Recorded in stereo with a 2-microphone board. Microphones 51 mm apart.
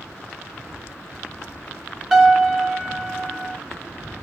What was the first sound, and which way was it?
A piano, centre (ahead or behind).